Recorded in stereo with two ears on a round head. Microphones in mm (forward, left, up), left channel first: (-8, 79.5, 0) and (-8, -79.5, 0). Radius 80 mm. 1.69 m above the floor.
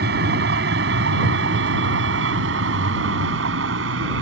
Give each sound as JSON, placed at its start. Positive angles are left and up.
{"t": 0.0, "sound": "a vehicle", "side_deg": -60}